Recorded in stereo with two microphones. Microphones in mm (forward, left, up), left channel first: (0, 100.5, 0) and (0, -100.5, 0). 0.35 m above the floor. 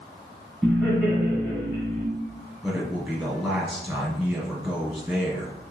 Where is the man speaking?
5° right (ahead or behind), 2 m.